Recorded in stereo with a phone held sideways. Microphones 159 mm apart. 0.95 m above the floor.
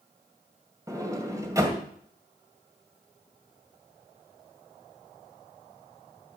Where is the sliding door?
20° right (ahead or behind), 2.0 m.